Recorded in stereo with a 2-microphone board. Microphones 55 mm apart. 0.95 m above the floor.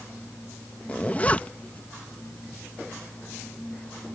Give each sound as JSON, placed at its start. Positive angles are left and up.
{"t": 0.9, "sound": "a zipper", "side_deg": 25}